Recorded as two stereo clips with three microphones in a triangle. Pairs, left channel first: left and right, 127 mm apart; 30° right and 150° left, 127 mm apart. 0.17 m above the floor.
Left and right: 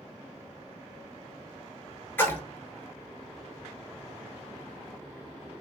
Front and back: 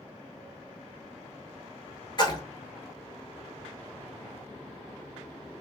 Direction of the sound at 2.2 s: 15° left.